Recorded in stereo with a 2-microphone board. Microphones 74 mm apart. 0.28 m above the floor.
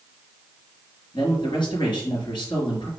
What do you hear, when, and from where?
1.1 s a man speaking: 75° left (ahead or behind), 4 m